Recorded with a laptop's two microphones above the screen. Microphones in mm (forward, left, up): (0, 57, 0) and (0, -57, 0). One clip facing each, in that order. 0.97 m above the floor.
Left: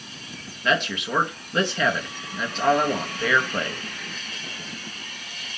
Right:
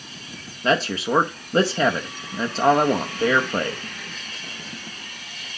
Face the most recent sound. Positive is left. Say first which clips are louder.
# right 3 dB
turn(degrees=-35)  # may be behind; listen again after turning